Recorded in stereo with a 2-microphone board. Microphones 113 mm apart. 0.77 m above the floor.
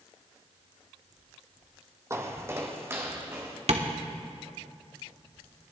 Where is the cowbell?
I don't hear a cowbell.